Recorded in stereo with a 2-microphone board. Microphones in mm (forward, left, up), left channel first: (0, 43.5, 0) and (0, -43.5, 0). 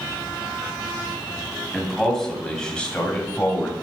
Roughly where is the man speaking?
Centre.